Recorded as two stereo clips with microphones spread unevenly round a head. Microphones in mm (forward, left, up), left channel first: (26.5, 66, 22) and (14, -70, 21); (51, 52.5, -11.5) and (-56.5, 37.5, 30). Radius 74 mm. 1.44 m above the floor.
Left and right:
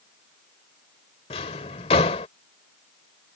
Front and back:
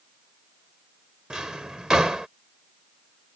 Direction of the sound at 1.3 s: 125° left.